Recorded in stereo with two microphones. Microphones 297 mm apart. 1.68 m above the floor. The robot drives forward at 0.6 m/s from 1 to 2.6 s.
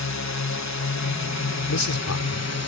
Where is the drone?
65° left (ahead or behind); by 2.7 s 60° left (ahead or behind).